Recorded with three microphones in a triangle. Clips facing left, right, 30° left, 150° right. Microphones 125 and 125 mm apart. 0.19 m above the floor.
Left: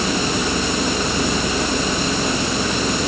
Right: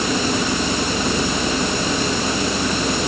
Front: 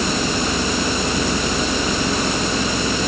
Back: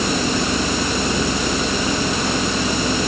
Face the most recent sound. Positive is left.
No sound to turn to.